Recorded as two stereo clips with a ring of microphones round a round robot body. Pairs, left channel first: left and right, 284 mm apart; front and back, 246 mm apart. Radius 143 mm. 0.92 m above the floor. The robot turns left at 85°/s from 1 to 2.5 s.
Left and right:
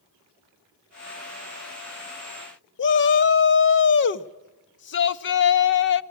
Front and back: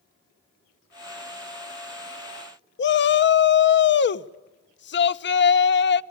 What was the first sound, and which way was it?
A shout, 40° left.